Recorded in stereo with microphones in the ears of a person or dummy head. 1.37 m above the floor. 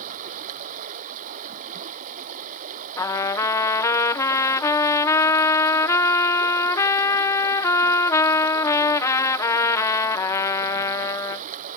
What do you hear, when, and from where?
0.0 s running water: 45° right (ahead or behind)
3.0 s a trumpet: 15° left (ahead or behind)